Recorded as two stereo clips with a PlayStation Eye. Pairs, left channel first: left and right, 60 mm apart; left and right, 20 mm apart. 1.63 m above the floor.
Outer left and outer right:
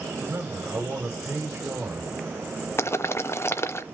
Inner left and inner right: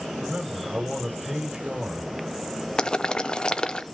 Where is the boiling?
45° left (ahead or behind), 0.7 m.